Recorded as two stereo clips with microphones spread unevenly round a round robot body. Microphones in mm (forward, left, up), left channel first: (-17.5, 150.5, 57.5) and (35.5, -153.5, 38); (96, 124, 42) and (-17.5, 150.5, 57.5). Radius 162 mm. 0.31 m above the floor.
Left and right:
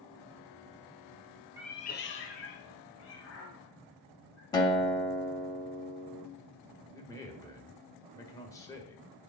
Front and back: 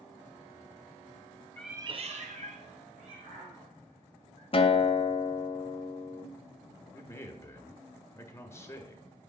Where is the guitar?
20° left, 0.9 m.